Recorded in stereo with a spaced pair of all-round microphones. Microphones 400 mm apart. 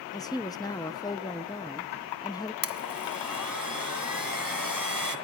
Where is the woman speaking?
10° left (ahead or behind), 0.8 m.